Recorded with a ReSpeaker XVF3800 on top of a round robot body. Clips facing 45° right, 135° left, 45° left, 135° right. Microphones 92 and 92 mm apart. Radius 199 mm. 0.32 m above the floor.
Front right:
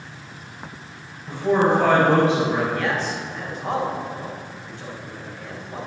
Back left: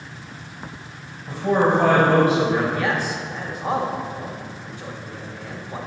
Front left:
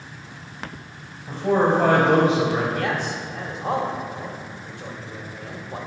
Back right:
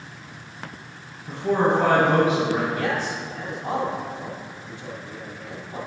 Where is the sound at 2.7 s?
55° left, 2 m.